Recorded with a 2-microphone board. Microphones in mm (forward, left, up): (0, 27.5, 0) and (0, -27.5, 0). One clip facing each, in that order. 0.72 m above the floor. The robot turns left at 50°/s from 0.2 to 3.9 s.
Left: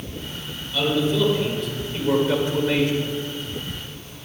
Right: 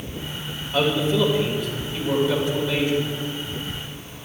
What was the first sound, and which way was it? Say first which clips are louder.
A man speaking: right 1 dB; 135° right.